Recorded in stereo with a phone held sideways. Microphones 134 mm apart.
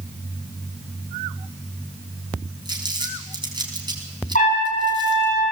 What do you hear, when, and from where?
2.6 s crumpling: 35° right (ahead or behind), 4.5 m
4.3 s a trumpet: 75° left (ahead or behind), 9.5 m